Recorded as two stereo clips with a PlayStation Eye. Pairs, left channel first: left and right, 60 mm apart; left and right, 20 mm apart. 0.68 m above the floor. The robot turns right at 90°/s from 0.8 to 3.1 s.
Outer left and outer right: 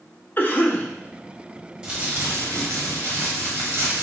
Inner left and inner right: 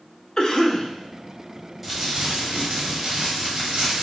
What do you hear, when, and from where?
0.4 s a cough: 40° left (ahead or behind), 0.6 m
1.8 s crumpling: 160° right, 1.2 m; by 4.0 s 50° right, 1.2 m